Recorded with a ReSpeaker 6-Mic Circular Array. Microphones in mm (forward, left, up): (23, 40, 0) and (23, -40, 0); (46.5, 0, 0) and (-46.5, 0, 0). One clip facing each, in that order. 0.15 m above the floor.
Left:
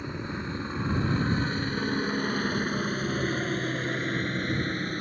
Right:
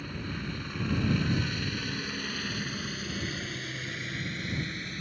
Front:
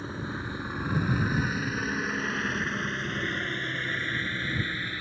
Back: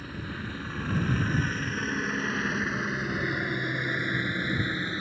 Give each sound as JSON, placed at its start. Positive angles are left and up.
{"t": 0.0, "sound": "a helicopter", "azimuth_deg": 45}